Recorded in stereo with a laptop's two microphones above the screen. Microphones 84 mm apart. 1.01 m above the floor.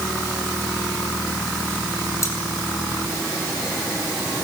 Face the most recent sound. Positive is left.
turn(degrees=35)  # may be behind; listen again after turning